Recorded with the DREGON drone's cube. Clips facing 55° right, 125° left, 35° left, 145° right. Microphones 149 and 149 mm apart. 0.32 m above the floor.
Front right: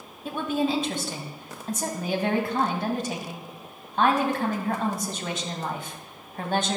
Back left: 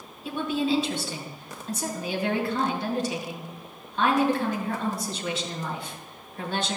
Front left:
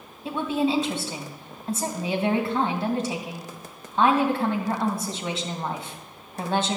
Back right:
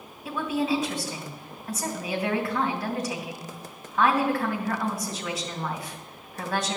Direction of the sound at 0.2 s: 25° right.